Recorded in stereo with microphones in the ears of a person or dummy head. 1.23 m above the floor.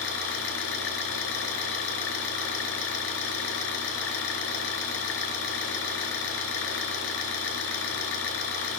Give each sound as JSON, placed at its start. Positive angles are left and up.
{"t": 0.0, "sound": "an engine running", "side_deg": 80, "distance_m": 4.5}